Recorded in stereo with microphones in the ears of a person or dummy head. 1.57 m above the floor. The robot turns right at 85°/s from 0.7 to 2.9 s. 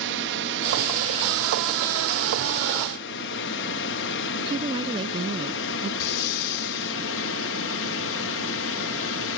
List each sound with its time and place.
0.0 s a drone: 60° right (ahead or behind); by 9.4 s 65° left (ahead or behind)
4.5 s a woman speaking: 30° right (ahead or behind)
6.0 s breathing: 60° left (ahead or behind)